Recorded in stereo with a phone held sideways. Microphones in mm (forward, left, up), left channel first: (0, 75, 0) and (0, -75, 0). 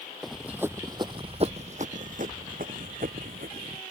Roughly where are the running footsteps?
Centre.